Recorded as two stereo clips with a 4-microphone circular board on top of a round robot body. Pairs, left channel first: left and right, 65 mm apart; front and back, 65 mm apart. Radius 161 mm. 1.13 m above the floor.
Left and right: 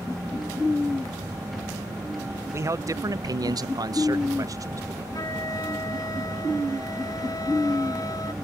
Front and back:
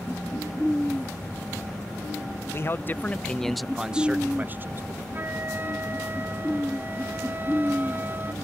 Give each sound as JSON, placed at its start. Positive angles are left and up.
{"t": 2.5, "sound": "a man speaking", "azimuth_deg": -45}
{"t": 5.1, "sound": "a flute", "azimuth_deg": 120}